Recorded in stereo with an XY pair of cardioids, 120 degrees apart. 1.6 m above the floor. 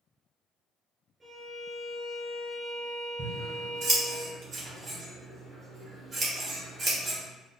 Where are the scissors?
45° right, 1.7 m.